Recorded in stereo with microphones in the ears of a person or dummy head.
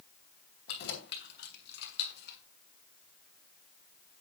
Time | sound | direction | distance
0.7 | keys jangling | 60° left (ahead or behind) | 3 m